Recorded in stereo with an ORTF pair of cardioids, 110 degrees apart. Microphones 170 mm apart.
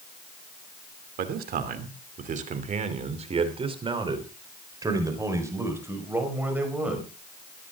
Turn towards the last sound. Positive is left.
turn(degrees=-10)